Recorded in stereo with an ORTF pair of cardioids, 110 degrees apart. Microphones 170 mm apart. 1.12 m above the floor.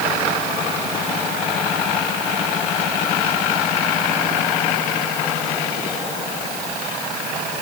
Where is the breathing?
I don't hear breathing.